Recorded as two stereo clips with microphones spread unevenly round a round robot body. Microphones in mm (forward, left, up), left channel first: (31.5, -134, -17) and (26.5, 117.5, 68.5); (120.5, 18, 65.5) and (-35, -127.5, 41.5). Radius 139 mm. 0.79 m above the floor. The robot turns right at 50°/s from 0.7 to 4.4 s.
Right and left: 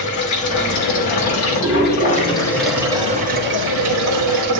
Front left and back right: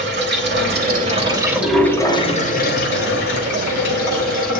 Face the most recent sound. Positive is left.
turn(degrees=85)